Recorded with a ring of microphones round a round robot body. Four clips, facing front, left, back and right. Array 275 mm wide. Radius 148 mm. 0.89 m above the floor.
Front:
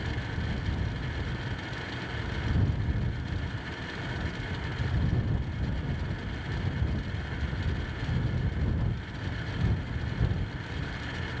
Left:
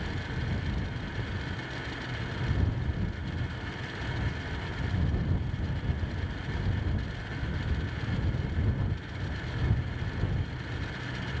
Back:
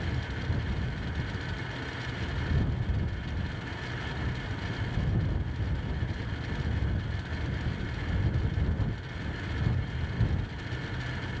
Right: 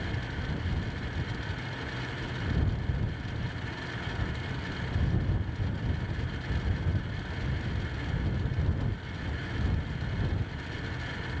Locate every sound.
Only background noise.